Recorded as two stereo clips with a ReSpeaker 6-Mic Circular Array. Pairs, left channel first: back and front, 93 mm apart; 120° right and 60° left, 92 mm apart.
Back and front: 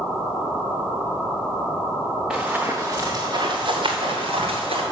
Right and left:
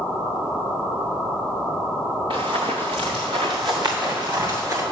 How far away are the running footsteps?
About 1.7 m.